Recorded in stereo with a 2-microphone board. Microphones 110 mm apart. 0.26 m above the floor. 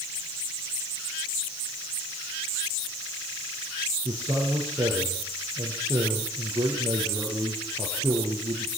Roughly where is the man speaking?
Right.